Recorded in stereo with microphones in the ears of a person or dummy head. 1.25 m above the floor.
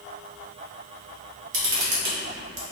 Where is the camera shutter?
75° right (ahead or behind), 1.2 m.